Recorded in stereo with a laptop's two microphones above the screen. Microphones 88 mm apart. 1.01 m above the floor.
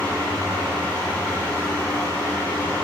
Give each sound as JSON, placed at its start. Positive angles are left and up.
{"t": 0.0, "sound": "a fan", "side_deg": 15, "distance_m": 1.6}